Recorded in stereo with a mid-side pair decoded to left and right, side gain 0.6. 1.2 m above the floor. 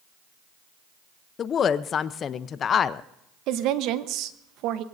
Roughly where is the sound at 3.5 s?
Ahead right.